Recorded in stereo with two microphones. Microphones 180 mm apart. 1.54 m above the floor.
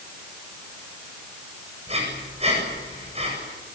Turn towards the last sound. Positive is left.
turn(degrees=-35)  # may be behind; listen again after turning